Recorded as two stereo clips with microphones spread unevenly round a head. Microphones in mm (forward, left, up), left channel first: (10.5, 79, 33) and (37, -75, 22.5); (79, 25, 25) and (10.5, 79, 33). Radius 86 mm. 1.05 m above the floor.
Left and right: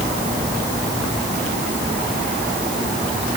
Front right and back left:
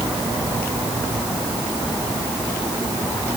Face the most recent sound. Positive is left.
No sound to turn to.